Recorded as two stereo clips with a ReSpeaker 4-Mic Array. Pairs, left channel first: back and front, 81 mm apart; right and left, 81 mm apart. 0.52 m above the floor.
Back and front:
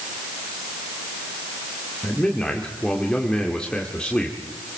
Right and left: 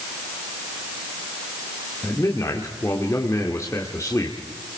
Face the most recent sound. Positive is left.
turn(degrees=-105)